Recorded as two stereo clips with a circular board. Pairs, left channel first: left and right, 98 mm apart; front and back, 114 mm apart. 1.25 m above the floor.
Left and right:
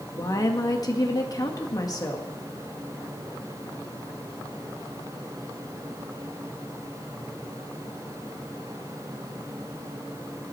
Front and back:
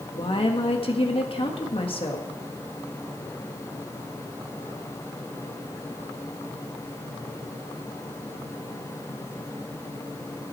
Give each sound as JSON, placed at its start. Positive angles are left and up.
{"t": 0.1, "sound": "a woman speaking", "azimuth_deg": 40, "distance_m": 1.7}